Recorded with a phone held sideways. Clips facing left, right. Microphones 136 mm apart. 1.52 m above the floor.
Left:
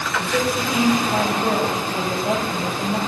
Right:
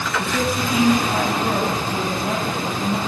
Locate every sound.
0.2 s a woman speaking: 70° left (ahead or behind), 7 m